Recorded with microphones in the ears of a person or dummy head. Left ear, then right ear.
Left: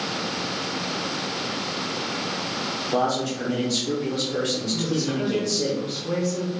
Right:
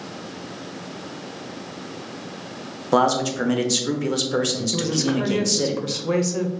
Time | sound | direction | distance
2.9 | a man speaking | 55° right (ahead or behind) | 0.6 m
4.7 | a woman speaking | 60° right (ahead or behind) | 0.6 m